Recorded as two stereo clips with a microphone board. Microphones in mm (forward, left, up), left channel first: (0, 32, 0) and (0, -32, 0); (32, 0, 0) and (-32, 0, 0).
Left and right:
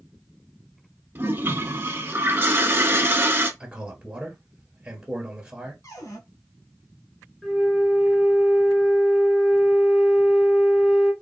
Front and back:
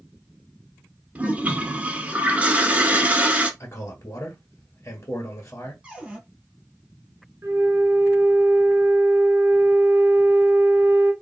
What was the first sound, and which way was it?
A toilet flushing, 125° right.